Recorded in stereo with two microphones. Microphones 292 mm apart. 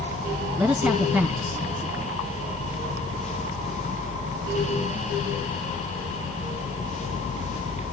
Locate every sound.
0.6 s a man speaking: 5° right (ahead or behind), 2.5 m